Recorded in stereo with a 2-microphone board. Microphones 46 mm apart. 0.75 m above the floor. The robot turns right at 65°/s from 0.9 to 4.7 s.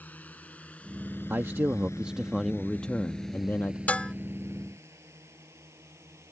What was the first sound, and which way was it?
A drone, 35° left (ahead or behind).